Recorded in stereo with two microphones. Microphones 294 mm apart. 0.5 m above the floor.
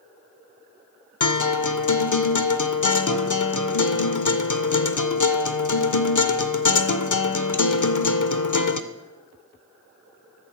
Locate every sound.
1.2 s a guitar: 75° left (ahead or behind), 0.6 m